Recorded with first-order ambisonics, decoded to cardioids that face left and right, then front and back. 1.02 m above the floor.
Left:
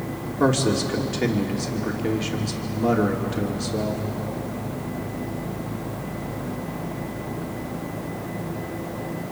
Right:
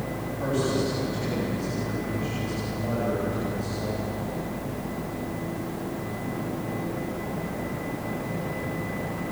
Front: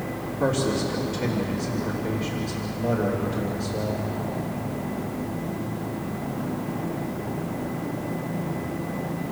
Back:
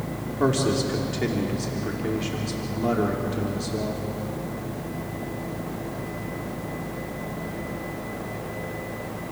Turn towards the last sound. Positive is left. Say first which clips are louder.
# left 5 dB, back 1 dB
turn(degrees=115)